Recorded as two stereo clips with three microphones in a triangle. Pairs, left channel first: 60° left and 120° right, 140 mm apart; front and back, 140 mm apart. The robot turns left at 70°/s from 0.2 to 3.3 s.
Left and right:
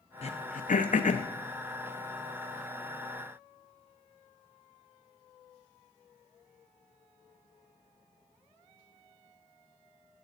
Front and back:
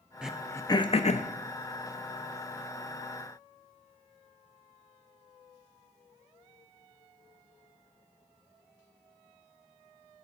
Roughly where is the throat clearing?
Left.